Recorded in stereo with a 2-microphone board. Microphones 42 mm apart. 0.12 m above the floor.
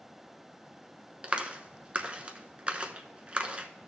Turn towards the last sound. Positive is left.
turn(degrees=-25)  # may be behind; listen again after turning